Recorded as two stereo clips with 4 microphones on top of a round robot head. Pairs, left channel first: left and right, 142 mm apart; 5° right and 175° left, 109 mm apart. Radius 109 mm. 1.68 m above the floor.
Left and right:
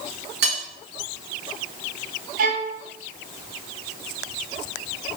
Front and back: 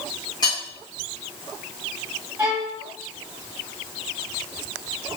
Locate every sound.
0.4 s cutlery clinking: 75° right, 1.4 m
2.4 s a violin: 110° right, 0.6 m